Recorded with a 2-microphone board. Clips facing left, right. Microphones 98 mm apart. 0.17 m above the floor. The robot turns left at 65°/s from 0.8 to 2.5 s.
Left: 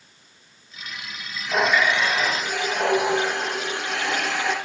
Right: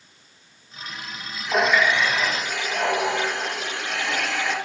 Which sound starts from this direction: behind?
A running tap, at 1.5 s.